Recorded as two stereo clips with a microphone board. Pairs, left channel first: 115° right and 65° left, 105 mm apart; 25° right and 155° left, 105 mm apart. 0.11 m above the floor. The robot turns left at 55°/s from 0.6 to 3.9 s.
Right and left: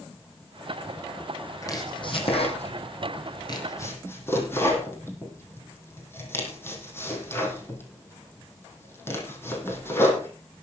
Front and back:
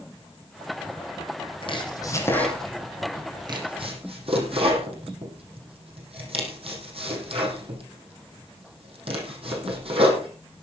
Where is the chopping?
55° right, 3.5 m; by 10.3 s straight behind, 3.5 m.